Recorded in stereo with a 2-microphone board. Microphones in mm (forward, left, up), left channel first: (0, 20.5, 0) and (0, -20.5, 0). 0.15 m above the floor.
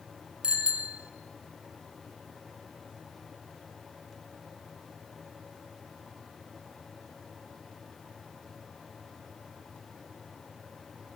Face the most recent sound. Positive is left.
turn(degrees=-25)  # may be behind; listen again after turning